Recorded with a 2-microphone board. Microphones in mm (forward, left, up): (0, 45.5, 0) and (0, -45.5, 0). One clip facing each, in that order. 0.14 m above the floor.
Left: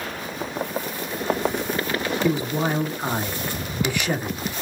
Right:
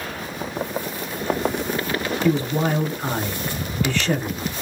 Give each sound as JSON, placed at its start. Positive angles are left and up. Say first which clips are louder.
{"t": 2.2, "sound": "a man speaking", "louder": "right 4 dB", "side_deg": 15, "distance_m": 1.1}